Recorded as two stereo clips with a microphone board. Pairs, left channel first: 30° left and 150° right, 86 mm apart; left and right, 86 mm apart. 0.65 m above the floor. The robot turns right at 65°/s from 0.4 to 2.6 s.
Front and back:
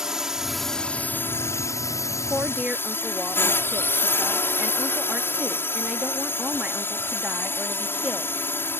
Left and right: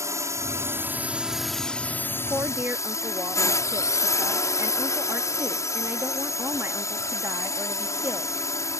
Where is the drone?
70° right; by 8.8 s 75° left.